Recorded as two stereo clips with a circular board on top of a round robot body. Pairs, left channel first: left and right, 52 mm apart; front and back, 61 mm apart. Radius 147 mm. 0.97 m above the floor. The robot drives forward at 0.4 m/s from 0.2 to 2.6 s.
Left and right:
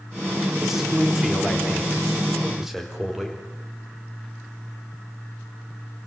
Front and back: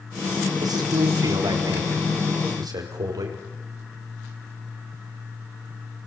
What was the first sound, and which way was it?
A man speaking, 175° right.